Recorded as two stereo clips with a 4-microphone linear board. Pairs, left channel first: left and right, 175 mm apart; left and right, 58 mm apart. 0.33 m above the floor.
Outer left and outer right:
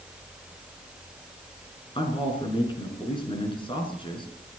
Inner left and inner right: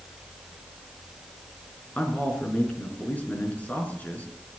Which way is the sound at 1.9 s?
30° left (ahead or behind).